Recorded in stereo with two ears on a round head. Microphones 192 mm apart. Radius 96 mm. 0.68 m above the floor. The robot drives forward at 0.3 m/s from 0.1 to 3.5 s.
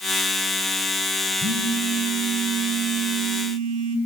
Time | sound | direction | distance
1.4 | a phone buzzing | 75° right (ahead or behind) | 3.5 m